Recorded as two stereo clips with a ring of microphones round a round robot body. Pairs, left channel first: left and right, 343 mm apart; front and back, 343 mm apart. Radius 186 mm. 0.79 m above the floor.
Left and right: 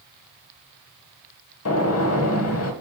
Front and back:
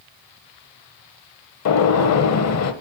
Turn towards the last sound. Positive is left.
turn(degrees=40)